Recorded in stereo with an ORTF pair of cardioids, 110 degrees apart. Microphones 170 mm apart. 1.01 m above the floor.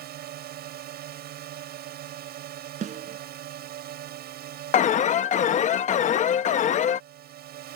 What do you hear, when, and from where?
0.0 s a drone: 65° right
2.8 s a snare drum: 45° right
4.7 s an alarm: 45° left